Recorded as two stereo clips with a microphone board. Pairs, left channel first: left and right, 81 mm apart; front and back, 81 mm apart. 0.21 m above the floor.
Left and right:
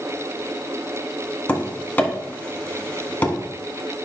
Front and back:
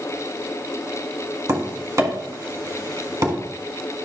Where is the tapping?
150° left, 1.6 m.